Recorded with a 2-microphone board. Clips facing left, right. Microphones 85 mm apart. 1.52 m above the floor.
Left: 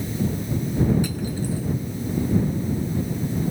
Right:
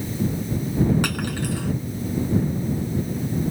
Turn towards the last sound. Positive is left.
turn(degrees=-75)  # may be behind; listen again after turning